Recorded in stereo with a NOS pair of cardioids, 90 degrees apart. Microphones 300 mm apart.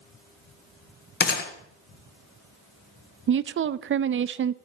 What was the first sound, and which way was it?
A gunshot, 35° left.